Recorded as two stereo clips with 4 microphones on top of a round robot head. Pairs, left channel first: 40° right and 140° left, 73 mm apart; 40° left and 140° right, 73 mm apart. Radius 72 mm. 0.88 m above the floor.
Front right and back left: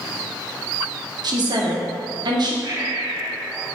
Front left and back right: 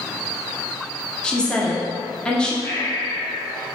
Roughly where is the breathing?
Left.